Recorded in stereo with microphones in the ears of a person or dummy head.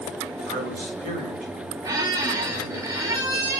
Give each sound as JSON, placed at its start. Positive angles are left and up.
{"t": 0.5, "sound": "a man speaking", "side_deg": -45, "distance_m": 4.0}
{"t": 1.8, "sound": "a squeak", "side_deg": -25, "distance_m": 1.4}